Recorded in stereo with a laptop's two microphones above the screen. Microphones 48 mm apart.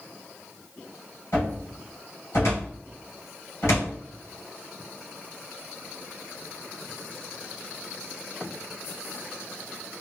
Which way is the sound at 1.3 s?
65° left (ahead or behind).